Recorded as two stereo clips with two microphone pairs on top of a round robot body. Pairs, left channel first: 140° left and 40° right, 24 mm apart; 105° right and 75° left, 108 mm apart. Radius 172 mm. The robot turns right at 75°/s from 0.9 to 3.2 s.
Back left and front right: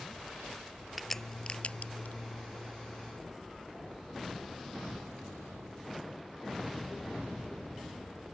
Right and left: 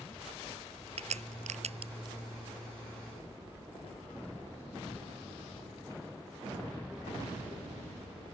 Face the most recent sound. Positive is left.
turn(degrees=-145)